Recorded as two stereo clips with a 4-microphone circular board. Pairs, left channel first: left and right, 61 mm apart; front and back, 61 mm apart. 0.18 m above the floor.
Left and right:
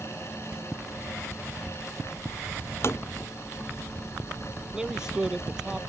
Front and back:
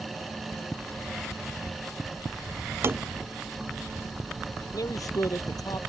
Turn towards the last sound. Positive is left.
turn(degrees=-10)